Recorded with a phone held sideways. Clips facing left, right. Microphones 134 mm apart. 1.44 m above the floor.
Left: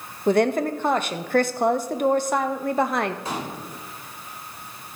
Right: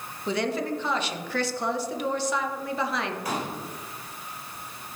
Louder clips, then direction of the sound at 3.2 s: Even; 25° left (ahead or behind).